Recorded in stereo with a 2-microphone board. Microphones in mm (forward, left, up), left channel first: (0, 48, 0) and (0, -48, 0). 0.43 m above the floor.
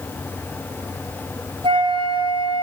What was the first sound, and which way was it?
A flute, 70° right (ahead or behind).